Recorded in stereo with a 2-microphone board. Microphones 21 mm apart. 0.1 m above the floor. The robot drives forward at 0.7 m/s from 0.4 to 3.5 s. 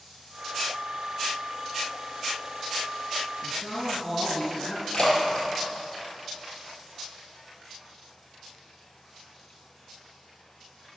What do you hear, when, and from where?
3.4 s a man speaking: 5° right (ahead or behind), 1.8 m
4.9 s a splash: 40° left (ahead or behind), 2.5 m